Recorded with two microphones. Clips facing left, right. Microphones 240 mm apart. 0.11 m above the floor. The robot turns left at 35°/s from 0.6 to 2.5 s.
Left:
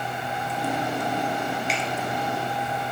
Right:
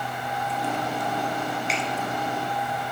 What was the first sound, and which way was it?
A finger snap, centre (ahead or behind).